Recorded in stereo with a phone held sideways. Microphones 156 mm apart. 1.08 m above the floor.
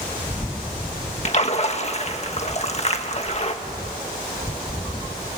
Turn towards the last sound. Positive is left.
turn(degrees=45)  # may be behind; listen again after turning